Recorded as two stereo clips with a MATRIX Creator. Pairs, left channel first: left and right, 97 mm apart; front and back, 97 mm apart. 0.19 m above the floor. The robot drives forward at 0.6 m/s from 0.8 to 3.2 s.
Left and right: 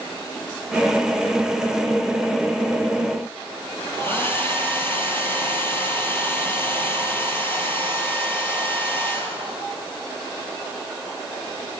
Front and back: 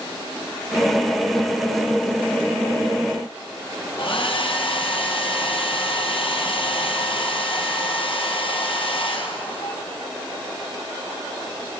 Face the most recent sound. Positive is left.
turn(degrees=25)